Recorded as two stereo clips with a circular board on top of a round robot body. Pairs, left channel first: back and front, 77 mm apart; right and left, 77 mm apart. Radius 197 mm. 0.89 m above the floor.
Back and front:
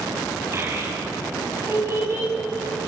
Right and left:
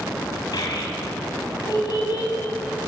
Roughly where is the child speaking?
Ahead right.